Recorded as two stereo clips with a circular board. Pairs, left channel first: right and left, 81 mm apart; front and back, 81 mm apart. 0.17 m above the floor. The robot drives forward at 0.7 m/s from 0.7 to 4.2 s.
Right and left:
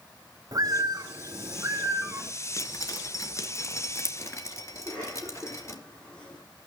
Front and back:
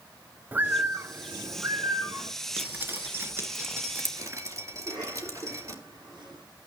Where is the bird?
115° left, 1.3 m; by 2.3 s 150° left, 2.0 m.